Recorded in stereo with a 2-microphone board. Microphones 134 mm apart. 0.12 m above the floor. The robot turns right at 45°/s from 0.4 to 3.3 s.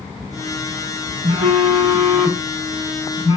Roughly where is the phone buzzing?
Ahead right.